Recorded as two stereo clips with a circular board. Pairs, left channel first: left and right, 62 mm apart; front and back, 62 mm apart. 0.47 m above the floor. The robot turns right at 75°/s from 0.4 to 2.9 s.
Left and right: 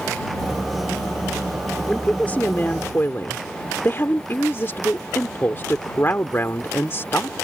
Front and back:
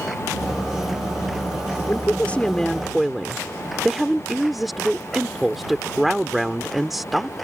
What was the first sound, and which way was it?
A woman speaking, 15° left.